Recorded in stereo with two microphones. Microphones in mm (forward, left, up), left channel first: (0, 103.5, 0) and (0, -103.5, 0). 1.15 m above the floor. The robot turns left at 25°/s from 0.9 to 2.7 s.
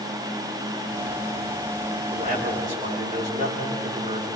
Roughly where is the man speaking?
Right.